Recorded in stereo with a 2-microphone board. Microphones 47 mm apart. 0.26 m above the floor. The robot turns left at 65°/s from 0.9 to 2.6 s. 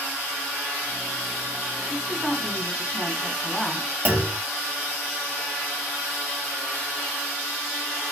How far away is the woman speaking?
About 1.8 m.